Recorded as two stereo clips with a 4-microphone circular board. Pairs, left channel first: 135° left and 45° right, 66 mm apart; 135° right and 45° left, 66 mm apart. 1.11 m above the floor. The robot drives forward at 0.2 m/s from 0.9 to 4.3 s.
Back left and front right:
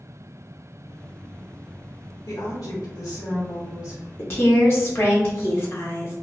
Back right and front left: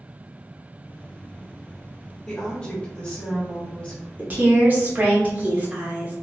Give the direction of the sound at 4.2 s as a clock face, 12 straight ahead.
9 o'clock.